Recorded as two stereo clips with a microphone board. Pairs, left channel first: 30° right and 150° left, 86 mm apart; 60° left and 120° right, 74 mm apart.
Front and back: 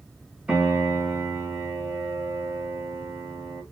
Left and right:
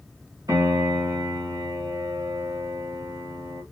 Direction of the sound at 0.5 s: 130° right.